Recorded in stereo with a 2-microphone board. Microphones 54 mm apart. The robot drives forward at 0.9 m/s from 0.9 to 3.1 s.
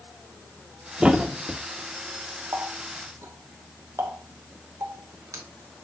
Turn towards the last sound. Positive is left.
turn(degrees=-70)  # may be behind; listen again after turning